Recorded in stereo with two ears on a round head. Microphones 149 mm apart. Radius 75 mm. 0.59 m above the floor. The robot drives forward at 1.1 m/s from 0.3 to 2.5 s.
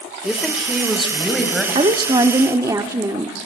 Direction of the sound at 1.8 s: 30° right (ahead or behind).